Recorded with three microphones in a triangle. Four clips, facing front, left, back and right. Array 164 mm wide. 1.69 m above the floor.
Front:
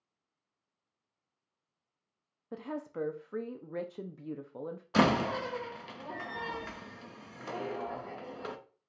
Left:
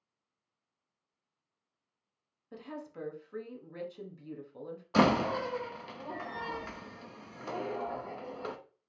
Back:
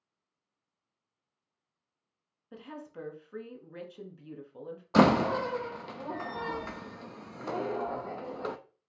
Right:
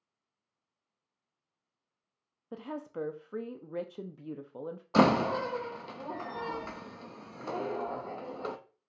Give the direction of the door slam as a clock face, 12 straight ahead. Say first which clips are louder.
Right 2 dB, back 4 dB; 5 o'clock.